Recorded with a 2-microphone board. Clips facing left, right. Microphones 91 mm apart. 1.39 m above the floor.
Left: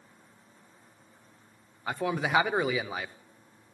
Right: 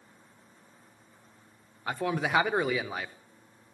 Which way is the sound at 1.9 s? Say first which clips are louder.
Even; centre (ahead or behind).